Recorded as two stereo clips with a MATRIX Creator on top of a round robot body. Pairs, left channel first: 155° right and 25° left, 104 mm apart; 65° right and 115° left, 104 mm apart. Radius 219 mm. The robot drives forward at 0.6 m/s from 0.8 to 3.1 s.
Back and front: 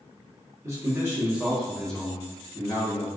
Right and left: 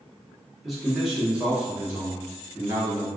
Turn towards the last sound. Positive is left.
turn(degrees=165)